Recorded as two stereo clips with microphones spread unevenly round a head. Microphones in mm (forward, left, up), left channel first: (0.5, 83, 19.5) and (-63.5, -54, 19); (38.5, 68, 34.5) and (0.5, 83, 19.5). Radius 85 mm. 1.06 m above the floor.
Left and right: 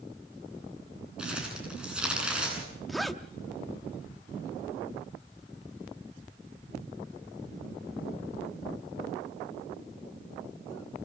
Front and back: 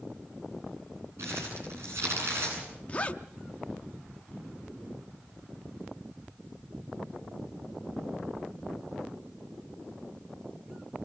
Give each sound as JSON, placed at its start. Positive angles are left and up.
{"t": 1.2, "sound": "crumpling", "azimuth_deg": 160, "distance_m": 10.0}
{"t": 2.9, "sound": "a zipper", "azimuth_deg": -25, "distance_m": 0.6}